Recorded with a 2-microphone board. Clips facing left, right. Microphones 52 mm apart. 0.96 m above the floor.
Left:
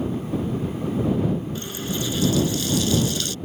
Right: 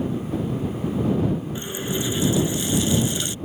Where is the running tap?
20° right (ahead or behind).